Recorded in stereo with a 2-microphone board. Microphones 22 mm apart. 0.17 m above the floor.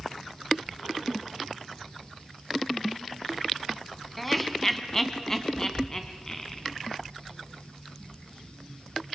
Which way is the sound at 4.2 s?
5° left (ahead or behind).